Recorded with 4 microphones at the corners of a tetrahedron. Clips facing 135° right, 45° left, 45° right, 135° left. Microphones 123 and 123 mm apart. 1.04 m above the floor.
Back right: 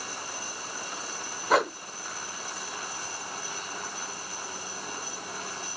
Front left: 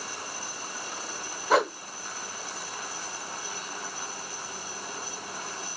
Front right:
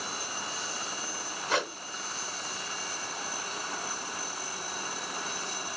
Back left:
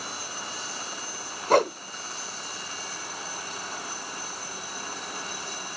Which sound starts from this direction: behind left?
A whoosh, at 1.5 s.